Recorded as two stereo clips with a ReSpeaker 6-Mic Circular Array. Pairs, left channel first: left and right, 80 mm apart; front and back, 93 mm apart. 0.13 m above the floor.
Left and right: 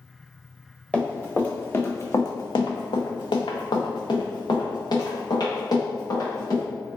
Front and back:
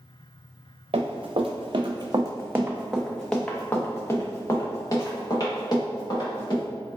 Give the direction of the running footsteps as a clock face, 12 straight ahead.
6 o'clock.